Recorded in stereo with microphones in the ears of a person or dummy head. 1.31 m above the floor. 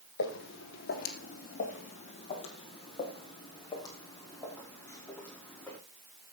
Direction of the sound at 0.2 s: 60° left (ahead or behind).